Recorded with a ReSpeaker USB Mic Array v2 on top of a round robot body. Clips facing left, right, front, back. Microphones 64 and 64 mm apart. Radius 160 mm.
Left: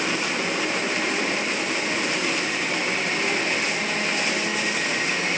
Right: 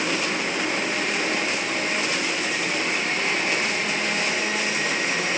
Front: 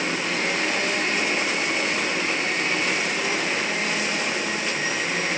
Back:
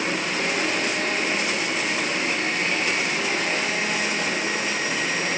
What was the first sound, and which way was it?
Only background noise.